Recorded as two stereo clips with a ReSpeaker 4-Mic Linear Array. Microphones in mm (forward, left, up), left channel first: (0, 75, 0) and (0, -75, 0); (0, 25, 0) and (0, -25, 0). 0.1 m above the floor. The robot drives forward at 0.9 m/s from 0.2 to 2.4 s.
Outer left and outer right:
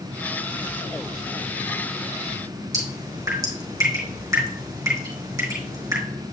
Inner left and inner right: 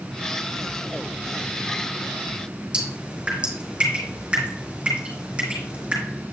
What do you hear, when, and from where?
2.7 s dripping: 20° right (ahead or behind), 3.5 m